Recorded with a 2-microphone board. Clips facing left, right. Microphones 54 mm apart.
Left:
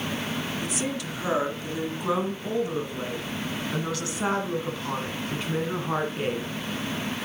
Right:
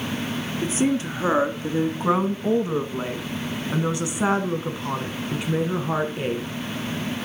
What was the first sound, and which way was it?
A woman speaking, 35° right (ahead or behind).